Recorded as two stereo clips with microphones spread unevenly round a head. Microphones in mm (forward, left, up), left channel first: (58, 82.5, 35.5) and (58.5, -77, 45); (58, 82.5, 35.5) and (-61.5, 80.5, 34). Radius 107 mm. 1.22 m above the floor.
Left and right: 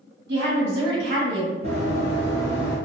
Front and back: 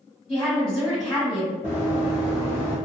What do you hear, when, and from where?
0.3 s a woman speaking: 90° right, 1.7 m
1.6 s running footsteps: 90° right, 1.4 m; by 2.8 s 135° right, 1.5 m